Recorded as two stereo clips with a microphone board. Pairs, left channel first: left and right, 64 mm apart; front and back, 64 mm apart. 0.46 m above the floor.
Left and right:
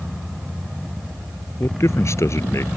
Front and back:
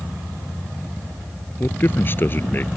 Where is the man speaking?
50° left.